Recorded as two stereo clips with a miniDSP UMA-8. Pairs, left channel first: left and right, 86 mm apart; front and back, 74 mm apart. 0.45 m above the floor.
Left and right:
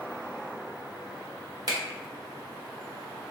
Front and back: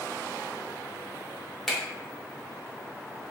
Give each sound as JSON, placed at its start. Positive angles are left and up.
{"t": 1.7, "sound": "a finger snap", "azimuth_deg": -85, "distance_m": 0.8}